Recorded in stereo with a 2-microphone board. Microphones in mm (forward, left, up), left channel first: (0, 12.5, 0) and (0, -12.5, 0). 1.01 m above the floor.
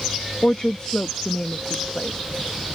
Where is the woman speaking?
35° left (ahead or behind).